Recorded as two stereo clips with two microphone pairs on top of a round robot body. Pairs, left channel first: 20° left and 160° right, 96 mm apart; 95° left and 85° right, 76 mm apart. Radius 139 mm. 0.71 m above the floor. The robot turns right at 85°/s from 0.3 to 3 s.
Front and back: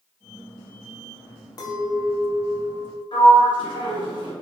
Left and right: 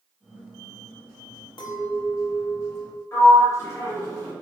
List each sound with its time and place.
1.6 s a clink: 70° left, 0.7 m; by 3.0 s 170° right, 0.7 m
3.1 s a sliding door: 45° left, 1.7 m